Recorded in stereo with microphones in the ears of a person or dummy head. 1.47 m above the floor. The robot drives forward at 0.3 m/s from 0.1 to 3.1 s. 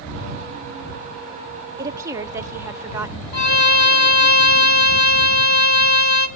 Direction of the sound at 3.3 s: 55° left (ahead or behind).